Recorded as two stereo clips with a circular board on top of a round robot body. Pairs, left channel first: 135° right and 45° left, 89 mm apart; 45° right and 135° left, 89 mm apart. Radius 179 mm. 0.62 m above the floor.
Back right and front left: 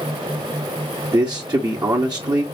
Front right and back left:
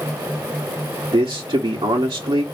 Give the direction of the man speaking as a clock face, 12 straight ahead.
9 o'clock.